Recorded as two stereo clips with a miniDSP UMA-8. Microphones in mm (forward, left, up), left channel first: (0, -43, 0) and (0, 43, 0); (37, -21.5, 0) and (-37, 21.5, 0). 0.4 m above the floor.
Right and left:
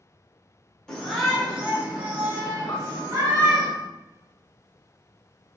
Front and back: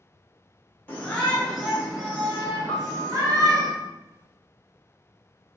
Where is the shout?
25° right, 1.4 m; by 3.7 s 120° left, 2.5 m.